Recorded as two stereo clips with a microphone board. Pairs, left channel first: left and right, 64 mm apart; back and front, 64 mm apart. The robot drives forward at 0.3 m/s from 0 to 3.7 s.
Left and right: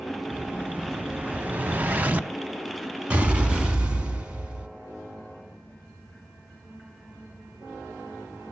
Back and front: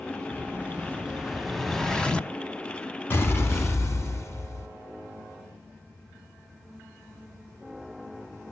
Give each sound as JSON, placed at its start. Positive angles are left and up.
{"t": 0.3, "sound": "an explosion", "azimuth_deg": -40, "distance_m": 0.7}